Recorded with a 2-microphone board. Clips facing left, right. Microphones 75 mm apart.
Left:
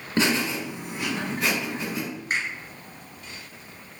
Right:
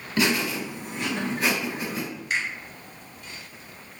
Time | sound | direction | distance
0.2 | laughter | 35° left (ahead or behind) | 1.4 m
2.3 | a finger snap | 40° left (ahead or behind) | 1.6 m